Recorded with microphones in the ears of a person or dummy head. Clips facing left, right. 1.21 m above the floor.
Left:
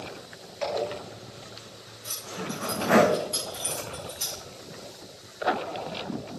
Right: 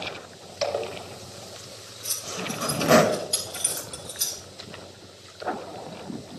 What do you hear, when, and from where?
0.6 s a zipper: 45° right (ahead or behind), 1.8 m
2.0 s keys jangling: 15° right (ahead or behind), 3.5 m